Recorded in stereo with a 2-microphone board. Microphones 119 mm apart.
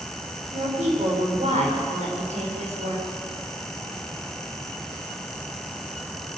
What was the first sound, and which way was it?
A woman speaking, 85° right.